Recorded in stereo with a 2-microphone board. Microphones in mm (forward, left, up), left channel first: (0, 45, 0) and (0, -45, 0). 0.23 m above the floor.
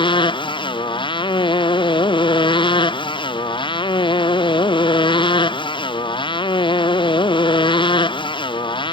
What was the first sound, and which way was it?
A motorcycle, 65° left (ahead or behind).